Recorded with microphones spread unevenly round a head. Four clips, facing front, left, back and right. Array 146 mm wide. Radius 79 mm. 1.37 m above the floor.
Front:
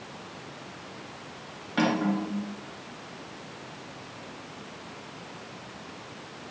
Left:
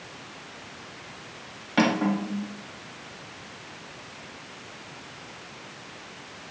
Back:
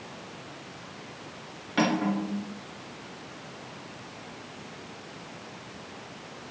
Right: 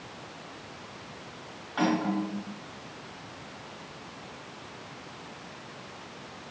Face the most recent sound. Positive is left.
turn(degrees=105)